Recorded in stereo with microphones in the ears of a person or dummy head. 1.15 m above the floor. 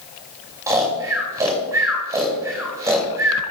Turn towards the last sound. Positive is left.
turn(degrees=-25)  # may be behind; listen again after turning